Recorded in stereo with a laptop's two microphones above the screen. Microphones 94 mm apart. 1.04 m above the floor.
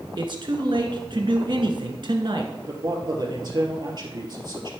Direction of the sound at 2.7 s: 45° right (ahead or behind).